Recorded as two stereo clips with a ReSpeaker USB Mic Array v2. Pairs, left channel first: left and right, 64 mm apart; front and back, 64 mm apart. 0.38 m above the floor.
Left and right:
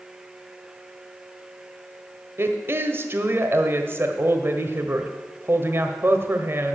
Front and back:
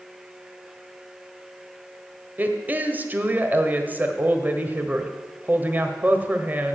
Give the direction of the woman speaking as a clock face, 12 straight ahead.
4 o'clock.